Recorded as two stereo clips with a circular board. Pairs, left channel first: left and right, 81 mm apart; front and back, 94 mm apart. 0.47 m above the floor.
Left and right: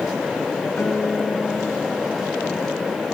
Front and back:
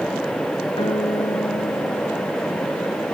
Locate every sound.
0.8 s a guitar: 20° left